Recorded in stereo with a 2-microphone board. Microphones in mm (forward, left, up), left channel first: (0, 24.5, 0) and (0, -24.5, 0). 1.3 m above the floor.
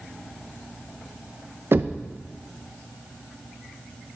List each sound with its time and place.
1.7 s knocking: 50° right (ahead or behind), 0.5 m